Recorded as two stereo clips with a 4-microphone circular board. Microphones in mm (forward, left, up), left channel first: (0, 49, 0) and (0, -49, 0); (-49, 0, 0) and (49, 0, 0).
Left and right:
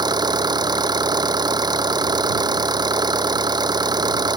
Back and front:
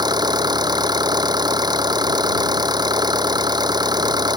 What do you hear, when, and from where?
0.0 s an engine running: 45° right